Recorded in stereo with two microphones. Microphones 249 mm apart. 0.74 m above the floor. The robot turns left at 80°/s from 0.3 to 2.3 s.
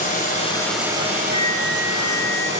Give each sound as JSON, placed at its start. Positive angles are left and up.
{"t": 0.0, "sound": "running water", "azimuth_deg": 35, "distance_m": 2.5}
{"t": 1.3, "sound": "a flute", "azimuth_deg": 30, "distance_m": 2.5}